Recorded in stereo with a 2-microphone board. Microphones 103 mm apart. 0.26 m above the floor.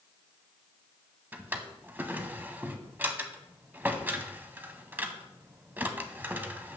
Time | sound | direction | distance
1.3 | a drawer | 20° right (ahead or behind) | 0.7 m